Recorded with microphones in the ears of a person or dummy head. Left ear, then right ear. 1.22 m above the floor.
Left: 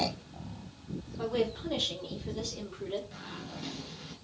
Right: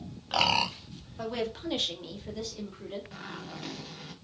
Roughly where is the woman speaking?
Right.